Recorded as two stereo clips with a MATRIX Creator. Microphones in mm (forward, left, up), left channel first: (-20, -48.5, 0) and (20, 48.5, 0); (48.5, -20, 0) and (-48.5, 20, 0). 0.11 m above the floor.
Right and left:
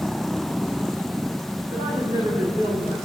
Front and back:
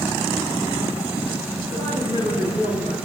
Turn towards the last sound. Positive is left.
turn(degrees=100)